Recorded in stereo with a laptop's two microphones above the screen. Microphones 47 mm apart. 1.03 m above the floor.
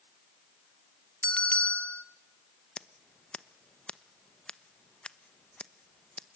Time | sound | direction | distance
1.2 | a bell | 20° left (ahead or behind) | 1.0 m
2.8 | scissors | 20° left (ahead or behind) | 1.0 m